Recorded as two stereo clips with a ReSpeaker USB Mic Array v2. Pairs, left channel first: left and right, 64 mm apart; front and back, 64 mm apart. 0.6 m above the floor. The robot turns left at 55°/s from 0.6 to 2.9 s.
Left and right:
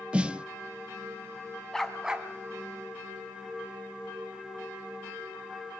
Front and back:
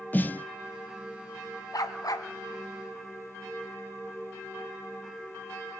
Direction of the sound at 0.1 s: 30° right.